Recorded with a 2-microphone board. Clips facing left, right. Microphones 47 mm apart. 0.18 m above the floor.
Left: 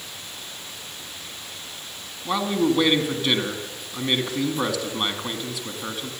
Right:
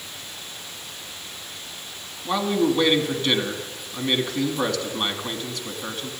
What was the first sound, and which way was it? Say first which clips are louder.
A man speaking: even; 5° left (ahead or behind).